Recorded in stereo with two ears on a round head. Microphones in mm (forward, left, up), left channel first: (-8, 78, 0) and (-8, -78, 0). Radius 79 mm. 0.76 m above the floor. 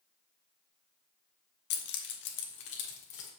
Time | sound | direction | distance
1.7 | keys jangling | 65° left (ahead or behind) | 1.0 m